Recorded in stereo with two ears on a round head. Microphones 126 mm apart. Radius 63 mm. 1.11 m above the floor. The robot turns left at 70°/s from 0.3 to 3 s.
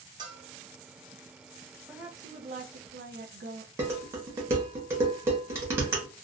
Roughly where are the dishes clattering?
Centre.